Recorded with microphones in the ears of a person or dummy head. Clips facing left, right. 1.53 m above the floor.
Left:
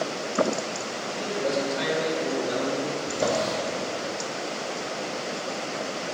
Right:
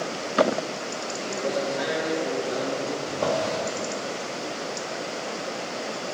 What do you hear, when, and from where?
1.2 s a man speaking: 30° left (ahead or behind), 2.5 m; by 3.0 s 50° left (ahead or behind), 3.5 m
3.1 s a drawer: 25° left (ahead or behind), 1.6 m